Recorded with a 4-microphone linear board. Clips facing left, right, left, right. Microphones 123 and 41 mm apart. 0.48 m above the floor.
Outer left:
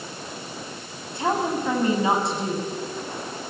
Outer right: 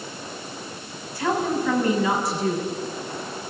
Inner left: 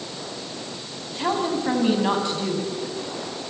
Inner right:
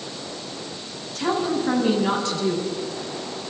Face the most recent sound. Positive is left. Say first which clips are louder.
# outer right 1 dB, inner right 1 dB
turn(degrees=20)  # may be behind; listen again after turning